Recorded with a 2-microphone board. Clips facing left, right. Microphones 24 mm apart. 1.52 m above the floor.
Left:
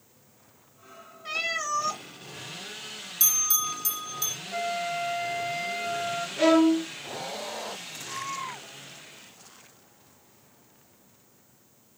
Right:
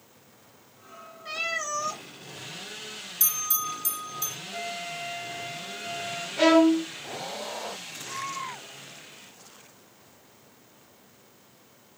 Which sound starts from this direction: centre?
A violin, at 6.4 s.